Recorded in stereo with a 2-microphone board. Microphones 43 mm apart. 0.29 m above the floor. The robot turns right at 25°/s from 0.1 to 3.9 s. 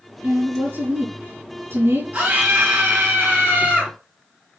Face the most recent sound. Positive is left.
turn(degrees=-55)